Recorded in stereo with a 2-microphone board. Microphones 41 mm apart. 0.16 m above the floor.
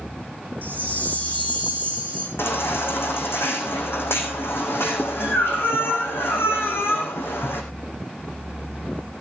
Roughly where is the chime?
Left.